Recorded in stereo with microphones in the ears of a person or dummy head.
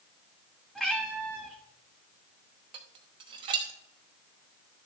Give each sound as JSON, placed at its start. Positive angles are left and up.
{"t": 0.8, "sound": "a cat meowing", "side_deg": 5, "distance_m": 1.3}
{"t": 2.7, "sound": "dishes clattering", "side_deg": -25, "distance_m": 0.9}